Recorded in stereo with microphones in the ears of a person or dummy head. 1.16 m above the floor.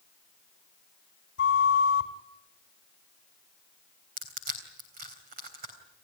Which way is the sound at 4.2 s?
40° right (ahead or behind).